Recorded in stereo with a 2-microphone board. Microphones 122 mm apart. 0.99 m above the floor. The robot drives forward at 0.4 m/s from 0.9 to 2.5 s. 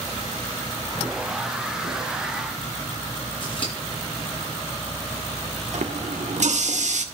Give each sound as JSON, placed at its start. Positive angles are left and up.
{"t": 3.4, "sound": "scissors", "side_deg": 45, "distance_m": 7.5}
{"t": 5.7, "sound": "a running tap", "side_deg": -75, "distance_m": 1.6}